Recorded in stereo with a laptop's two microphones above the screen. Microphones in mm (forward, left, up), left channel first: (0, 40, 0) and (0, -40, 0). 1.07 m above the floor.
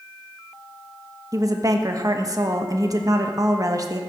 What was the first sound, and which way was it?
A woman speaking, 45° right (ahead or behind).